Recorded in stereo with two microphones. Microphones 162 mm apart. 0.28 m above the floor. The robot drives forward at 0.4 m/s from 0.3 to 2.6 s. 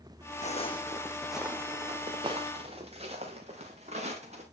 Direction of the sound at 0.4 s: 45° left (ahead or behind).